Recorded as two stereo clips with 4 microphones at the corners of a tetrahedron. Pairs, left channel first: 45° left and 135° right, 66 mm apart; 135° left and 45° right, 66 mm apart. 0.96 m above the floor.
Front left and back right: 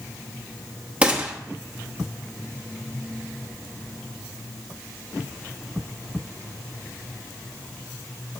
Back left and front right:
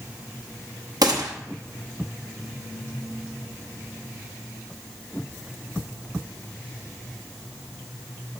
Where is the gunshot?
65° right, 1.0 m.